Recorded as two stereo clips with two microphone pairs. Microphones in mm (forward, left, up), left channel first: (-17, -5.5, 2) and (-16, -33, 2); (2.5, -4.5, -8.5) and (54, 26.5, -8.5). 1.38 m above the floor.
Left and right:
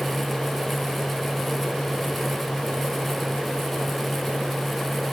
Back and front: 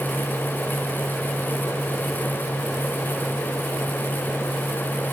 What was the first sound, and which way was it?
Only background noise.